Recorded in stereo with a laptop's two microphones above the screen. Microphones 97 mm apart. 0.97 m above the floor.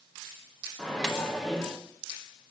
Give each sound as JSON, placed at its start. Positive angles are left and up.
{"t": 0.8, "sound": "a microwave", "side_deg": 5, "distance_m": 0.6}